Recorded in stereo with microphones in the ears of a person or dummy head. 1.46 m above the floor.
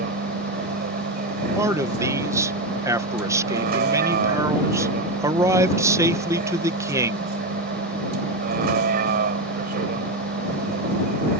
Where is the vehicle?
50° right (ahead or behind).